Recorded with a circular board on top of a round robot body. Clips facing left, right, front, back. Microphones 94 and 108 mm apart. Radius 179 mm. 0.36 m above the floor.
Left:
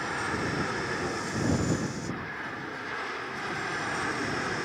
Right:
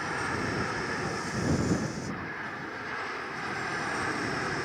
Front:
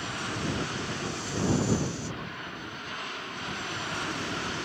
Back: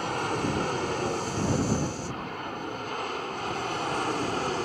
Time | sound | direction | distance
0.0 | an aircraft | straight behind | ?